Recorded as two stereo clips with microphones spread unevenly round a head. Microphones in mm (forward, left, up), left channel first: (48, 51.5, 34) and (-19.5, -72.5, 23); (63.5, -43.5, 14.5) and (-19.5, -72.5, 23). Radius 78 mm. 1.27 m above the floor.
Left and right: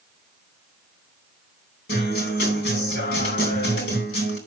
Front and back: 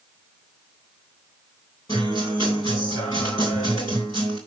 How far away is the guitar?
About 3.5 m.